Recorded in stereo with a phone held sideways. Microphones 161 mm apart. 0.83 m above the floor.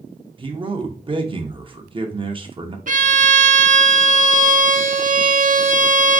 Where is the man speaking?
30° right (ahead or behind), 0.7 m.